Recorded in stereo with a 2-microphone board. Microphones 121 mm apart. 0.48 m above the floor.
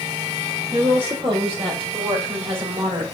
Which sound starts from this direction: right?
A woman speaking, at 0.7 s.